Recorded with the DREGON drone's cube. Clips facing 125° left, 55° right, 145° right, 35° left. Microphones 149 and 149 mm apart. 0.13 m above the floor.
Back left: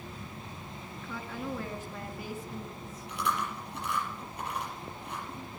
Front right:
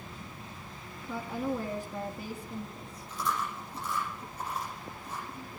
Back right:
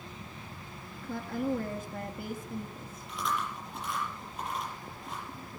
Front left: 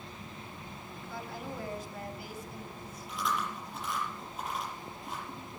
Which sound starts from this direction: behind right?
A woman speaking, at 1.0 s.